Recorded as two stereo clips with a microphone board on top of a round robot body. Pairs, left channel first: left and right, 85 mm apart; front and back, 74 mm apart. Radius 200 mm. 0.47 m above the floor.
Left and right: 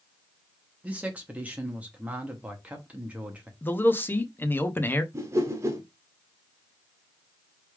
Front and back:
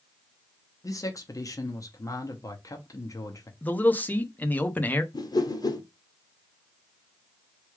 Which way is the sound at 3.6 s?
45° left.